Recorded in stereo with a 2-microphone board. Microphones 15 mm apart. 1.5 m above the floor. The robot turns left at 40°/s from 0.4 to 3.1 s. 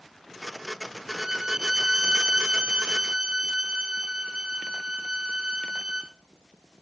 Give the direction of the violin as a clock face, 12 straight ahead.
1 o'clock.